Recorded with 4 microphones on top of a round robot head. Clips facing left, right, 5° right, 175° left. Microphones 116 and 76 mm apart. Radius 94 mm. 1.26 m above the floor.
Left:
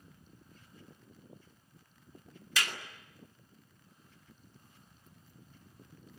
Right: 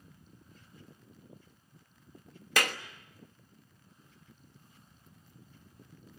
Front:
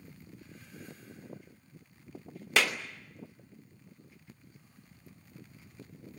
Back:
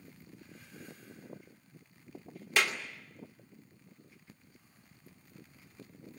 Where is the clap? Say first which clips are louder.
Right 6 dB, front 2 dB; 40° right, 1.1 m.